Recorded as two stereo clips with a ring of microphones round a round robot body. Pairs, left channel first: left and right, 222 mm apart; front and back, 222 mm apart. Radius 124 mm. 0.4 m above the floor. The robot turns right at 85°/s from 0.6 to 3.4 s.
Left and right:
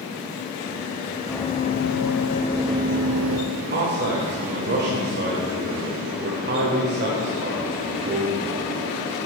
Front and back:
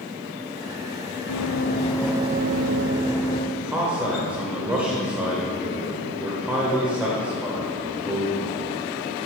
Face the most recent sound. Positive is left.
turn(degrees=-100)